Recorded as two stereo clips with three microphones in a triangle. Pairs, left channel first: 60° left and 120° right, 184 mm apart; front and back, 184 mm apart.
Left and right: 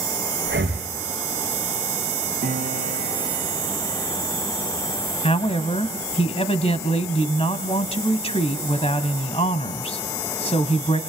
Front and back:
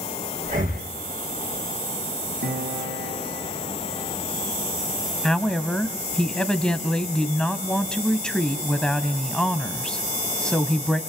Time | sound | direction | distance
0.4 | breathing | 135° right | 5 m
2.4 | a piano | 160° right | 5 m
5.2 | a woman speaking | 85° left | 1.5 m